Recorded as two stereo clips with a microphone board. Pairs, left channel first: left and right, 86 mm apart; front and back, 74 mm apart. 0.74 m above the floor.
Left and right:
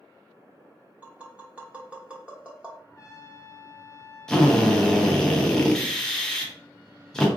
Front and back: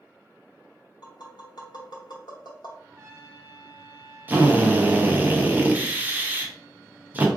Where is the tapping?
15° right, 0.8 m.